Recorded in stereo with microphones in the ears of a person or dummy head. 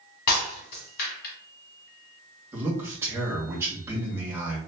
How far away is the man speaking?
About 2.0 m.